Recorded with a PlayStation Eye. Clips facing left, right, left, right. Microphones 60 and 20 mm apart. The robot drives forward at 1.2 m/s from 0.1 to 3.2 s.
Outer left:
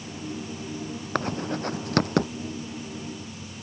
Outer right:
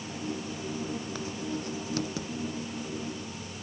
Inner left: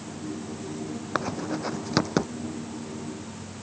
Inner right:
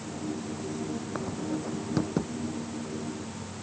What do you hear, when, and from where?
1.1 s writing: 60° left (ahead or behind); by 2.3 s 65° left (ahead or behind)